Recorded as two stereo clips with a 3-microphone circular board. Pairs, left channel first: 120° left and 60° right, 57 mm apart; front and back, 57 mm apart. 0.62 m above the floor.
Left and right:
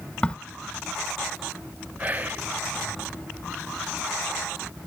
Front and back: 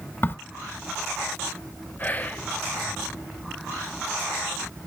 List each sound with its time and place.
0.2 s a crack: 45° left, 0.9 m
2.0 s whispering: 30° right, 0.8 m